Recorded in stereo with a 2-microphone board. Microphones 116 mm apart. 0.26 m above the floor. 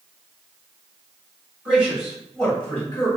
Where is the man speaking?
10° right (ahead or behind), 1.7 m; by 3.1 s 20° left (ahead or behind), 1.8 m.